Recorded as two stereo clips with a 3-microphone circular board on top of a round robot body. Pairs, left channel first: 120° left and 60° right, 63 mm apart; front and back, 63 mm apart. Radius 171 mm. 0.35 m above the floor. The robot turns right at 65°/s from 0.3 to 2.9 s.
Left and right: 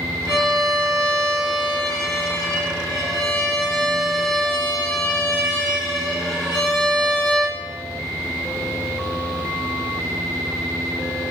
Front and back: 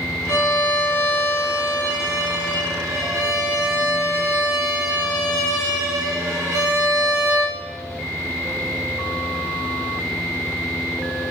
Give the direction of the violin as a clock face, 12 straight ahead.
11 o'clock.